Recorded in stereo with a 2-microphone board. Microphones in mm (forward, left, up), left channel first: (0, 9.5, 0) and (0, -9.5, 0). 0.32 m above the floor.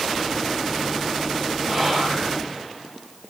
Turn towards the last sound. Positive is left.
turn(degrees=-30)  # may be behind; listen again after turning